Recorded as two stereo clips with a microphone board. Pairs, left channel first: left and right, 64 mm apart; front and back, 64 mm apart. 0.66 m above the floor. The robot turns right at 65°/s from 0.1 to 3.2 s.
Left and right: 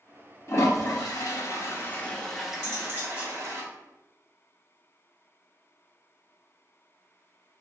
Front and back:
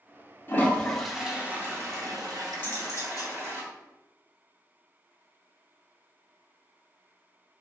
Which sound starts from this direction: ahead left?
A toilet flushing, at 0.5 s.